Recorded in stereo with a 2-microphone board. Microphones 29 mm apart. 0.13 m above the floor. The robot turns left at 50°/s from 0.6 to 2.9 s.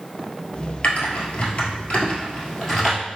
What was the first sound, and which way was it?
Typing on a keyboard, 60° left (ahead or behind).